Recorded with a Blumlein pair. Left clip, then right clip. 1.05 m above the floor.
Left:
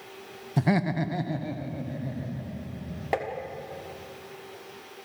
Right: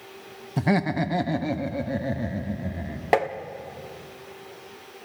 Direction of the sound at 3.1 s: 20° right.